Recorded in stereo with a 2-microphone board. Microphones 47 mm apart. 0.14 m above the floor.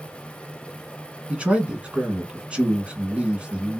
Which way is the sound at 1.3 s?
25° right (ahead or behind).